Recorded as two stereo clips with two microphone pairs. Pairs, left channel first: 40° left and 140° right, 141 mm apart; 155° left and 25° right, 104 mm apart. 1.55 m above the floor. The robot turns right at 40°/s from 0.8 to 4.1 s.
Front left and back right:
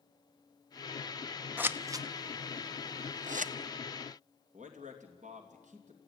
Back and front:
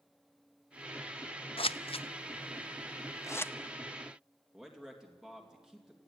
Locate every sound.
1.6 s scissors: 140° left, 0.6 m; by 3.5 s 140° right, 0.6 m
4.5 s a man speaking: 110° right, 3 m